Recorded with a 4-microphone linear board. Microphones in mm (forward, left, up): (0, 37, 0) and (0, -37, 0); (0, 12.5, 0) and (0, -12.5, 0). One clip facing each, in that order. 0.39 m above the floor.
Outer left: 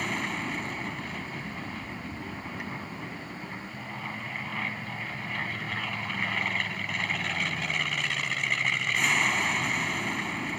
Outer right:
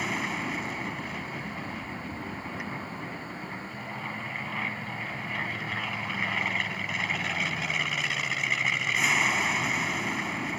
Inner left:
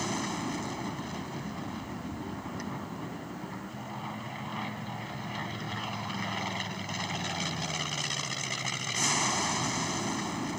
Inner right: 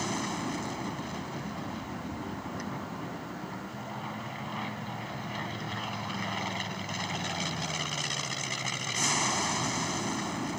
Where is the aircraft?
5° right (ahead or behind).